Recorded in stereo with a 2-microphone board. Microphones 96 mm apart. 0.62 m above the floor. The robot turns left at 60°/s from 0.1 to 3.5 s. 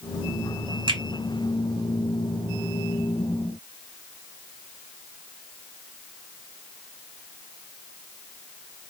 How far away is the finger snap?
About 1.6 m.